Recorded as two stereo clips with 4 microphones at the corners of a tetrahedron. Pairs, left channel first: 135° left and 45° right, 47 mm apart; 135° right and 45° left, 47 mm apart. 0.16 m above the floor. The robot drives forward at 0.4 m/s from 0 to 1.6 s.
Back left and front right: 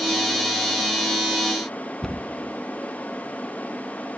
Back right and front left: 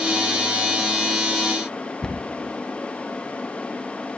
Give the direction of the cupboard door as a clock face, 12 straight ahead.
6 o'clock.